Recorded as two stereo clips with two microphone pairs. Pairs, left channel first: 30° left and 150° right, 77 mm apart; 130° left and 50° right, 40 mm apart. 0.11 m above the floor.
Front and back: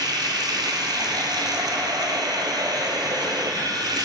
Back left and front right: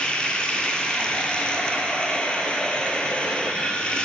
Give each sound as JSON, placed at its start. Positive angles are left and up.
{"t": 0.0, "sound": "running water", "azimuth_deg": -165, "distance_m": 1.0}